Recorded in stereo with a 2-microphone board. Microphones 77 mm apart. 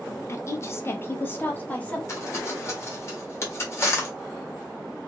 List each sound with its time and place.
0.3 s a woman speaking: 40° left (ahead or behind), 0.6 m; by 2.0 s 20° left (ahead or behind), 1.1 m
2.1 s crumpling: 35° left (ahead or behind), 1.5 m